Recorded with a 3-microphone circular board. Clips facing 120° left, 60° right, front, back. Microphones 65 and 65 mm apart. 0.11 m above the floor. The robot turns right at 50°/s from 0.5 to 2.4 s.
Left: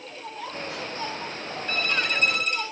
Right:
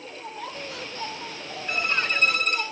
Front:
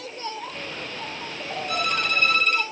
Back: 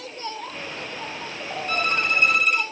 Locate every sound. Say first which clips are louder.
1.7 s a violin: right 1 dB, back 2 dB; 135° right, 1.1 m; by 2.6 s 100° right, 1.1 m